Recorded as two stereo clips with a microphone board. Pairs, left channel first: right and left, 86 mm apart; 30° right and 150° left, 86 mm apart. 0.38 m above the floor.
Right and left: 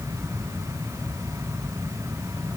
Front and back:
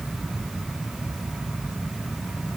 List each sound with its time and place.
Only background noise.